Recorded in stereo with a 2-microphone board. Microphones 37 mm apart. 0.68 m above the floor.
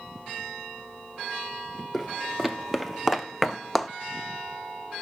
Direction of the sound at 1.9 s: 10° right (ahead or behind).